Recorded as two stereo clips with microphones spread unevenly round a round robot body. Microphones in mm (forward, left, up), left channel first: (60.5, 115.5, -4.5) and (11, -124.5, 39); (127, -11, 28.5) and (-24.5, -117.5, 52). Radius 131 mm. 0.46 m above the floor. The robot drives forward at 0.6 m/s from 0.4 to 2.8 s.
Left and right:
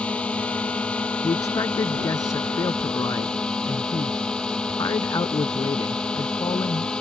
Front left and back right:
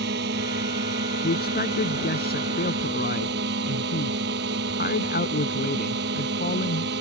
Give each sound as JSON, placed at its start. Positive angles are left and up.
{"t": 0.0, "sound": "a drone", "azimuth_deg": 165}
{"t": 1.2, "sound": "a man speaking", "azimuth_deg": 0}